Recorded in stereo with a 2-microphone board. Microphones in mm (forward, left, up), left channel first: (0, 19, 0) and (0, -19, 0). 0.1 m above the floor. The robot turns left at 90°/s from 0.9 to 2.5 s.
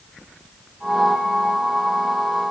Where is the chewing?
No chewing in this recording.